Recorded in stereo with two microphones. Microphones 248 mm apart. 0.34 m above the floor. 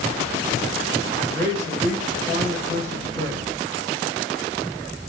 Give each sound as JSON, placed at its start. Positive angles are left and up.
{"t": 1.3, "sound": "a man speaking", "side_deg": 10, "distance_m": 6.0}